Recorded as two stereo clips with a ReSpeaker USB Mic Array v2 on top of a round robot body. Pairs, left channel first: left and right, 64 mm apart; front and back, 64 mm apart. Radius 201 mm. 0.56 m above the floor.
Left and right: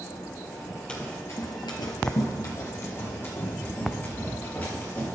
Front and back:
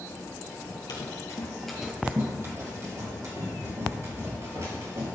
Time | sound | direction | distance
0.9 | running footsteps | 15° left | 1.4 m